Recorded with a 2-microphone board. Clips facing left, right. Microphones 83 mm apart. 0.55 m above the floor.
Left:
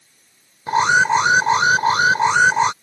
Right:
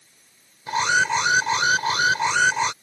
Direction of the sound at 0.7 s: 35° left (ahead or behind).